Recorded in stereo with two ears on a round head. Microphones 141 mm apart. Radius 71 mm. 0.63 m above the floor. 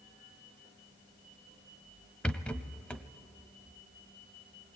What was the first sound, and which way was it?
A rattle, 5° left (ahead or behind).